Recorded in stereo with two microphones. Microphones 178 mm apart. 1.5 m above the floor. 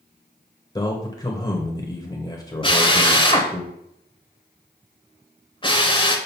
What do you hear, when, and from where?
0.8 s a man speaking: 25° left (ahead or behind), 1.0 m
2.6 s a drill: 30° left (ahead or behind), 1.0 m